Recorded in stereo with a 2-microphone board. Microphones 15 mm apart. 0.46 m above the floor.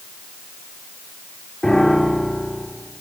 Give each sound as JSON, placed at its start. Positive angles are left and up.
{"t": 1.6, "sound": "a piano", "side_deg": 45, "distance_m": 7.0}